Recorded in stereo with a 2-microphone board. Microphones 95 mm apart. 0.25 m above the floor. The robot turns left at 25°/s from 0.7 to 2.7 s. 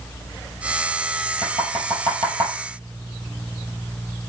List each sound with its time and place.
1.4 s knocking: 75° right (ahead or behind), 5 m; by 2.5 s 50° right (ahead or behind), 5 m